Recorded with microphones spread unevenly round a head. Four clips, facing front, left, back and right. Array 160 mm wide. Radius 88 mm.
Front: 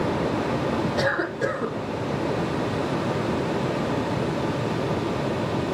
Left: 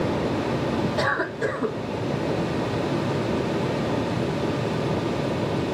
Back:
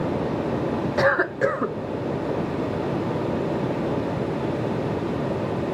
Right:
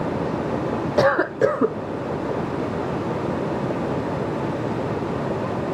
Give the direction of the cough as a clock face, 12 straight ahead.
3 o'clock.